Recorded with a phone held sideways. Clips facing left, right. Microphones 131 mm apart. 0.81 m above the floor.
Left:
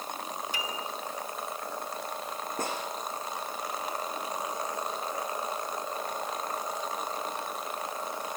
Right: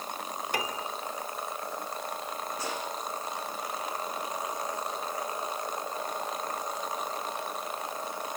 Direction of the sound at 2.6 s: 50° left (ahead or behind).